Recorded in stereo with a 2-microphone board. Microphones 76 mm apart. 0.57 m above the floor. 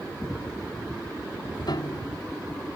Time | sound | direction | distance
1.7 | a piano | 70° left (ahead or behind) | ?